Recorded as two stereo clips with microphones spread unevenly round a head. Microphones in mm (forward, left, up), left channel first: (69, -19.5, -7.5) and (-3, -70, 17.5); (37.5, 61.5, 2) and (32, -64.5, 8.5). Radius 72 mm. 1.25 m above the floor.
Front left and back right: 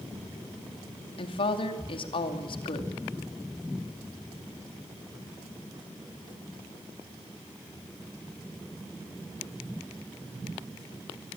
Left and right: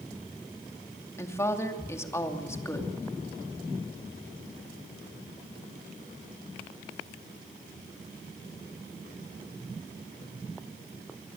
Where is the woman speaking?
20° left, 2.5 m.